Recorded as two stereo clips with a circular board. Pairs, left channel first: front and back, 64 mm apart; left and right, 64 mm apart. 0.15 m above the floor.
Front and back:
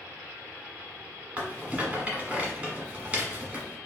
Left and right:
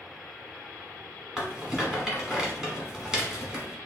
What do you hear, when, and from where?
1.4 s a rattle: 155° right, 1.1 m